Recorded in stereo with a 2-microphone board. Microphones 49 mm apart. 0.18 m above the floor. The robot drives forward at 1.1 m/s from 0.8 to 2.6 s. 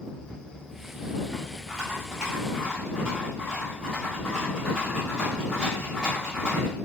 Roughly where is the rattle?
Centre.